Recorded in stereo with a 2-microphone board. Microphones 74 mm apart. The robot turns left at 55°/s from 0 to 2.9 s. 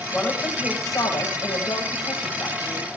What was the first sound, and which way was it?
A woman speaking, 175° left.